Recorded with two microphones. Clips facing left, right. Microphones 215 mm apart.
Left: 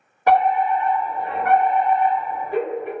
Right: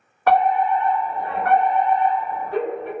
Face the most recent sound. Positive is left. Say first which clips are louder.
# even
turn(degrees=15)  # may be behind; listen again after turning